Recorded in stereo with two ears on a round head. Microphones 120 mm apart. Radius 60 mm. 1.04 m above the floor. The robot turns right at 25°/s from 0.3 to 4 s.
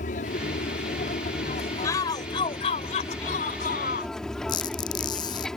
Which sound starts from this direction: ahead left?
A shout, at 1.8 s.